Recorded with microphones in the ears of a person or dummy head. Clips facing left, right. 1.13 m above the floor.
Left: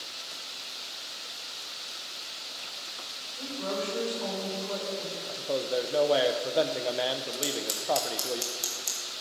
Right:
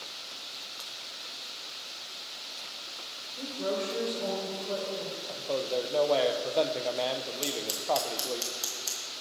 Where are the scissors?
5° right (ahead or behind), 0.9 m.